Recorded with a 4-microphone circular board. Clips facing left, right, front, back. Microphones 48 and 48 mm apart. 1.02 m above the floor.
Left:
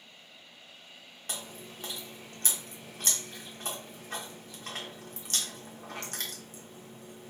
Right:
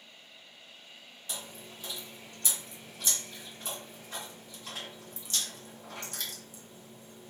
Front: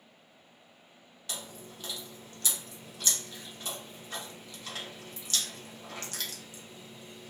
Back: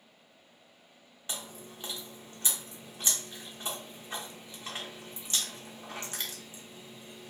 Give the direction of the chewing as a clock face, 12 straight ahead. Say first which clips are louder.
Left 2 dB, even; 8 o'clock.